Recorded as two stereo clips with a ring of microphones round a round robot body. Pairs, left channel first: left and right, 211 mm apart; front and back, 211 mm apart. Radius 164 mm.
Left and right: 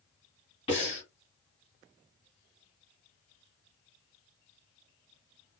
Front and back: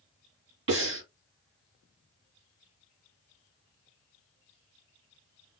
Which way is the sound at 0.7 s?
160° left.